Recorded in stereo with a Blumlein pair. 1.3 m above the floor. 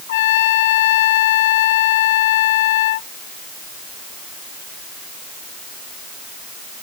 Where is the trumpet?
55° left.